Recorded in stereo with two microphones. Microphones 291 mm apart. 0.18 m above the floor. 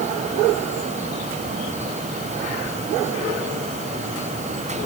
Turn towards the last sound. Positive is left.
No sound to turn to.